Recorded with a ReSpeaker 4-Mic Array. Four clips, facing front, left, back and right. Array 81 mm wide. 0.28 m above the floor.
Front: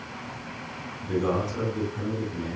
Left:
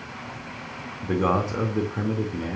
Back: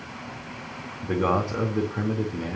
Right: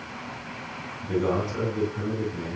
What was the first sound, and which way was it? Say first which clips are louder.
A man speaking: left 2 dB, back 2 dB; 125° left.